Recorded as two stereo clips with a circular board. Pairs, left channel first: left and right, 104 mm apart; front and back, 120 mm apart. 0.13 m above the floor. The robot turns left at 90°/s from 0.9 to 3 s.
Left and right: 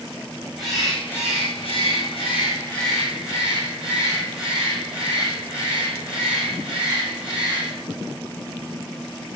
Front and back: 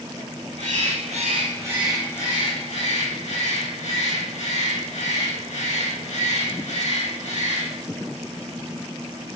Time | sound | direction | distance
0.6 | a bird | straight behind | 8 m